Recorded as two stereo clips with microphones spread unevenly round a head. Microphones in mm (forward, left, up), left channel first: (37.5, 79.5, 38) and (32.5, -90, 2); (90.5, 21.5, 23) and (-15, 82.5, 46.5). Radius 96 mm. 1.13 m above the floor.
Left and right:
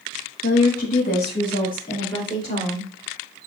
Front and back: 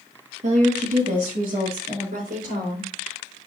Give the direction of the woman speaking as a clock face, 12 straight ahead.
8 o'clock.